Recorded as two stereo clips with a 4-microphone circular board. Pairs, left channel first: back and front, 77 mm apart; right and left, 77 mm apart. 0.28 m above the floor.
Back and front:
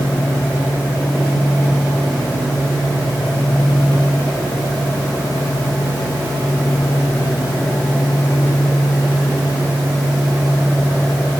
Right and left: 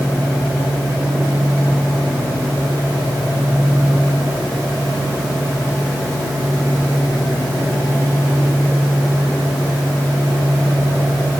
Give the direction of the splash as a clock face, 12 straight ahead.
I don't hear a splash.